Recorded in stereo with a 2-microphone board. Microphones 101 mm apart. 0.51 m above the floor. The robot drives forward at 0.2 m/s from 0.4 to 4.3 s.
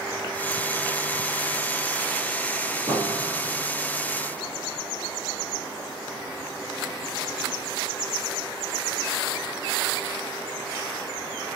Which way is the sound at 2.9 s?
35° right (ahead or behind).